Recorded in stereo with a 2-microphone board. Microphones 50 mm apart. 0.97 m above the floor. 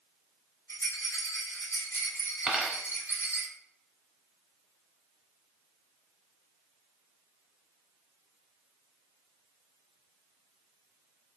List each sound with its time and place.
0.7 s a rattle: 80° left, 2 m
2.5 s a dropped coin: 10° right (ahead or behind), 0.8 m